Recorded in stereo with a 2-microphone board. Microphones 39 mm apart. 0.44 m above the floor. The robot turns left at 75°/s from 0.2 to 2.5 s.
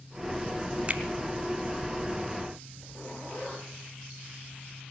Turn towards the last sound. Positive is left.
turn(degrees=45)  # may be behind; listen again after turning